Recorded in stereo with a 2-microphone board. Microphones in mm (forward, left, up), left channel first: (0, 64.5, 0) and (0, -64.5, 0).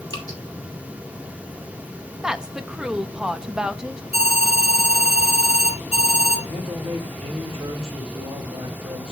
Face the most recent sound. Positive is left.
turn(degrees=-45)  # may be behind; listen again after turning